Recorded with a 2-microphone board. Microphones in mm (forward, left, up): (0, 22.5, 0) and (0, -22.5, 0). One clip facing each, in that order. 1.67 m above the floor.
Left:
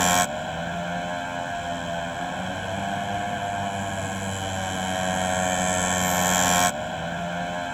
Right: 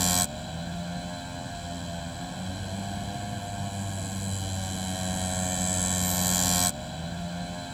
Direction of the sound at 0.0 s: 50° left (ahead or behind).